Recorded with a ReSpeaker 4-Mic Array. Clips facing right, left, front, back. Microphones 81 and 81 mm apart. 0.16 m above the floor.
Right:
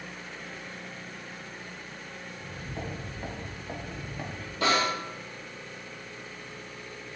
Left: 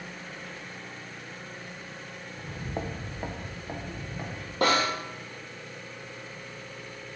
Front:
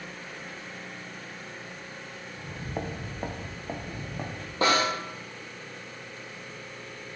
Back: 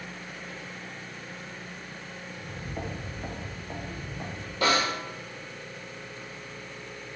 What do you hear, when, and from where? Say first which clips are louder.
2.3 s footsteps: left 5 dB, front 3 dB; 85° left, 0.5 m; by 4.5 s 5° right, 1.5 m
4.6 s a snare drum: left 1 dB, front 1 dB; 55° left, 1.0 m